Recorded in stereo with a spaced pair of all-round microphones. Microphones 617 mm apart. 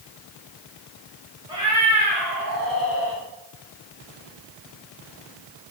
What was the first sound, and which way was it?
A cat meowing, 5° right (ahead or behind).